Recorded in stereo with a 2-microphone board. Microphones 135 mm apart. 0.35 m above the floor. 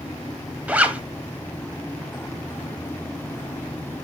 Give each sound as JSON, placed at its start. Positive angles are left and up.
{"t": 0.7, "sound": "a zipper", "side_deg": -10, "distance_m": 0.9}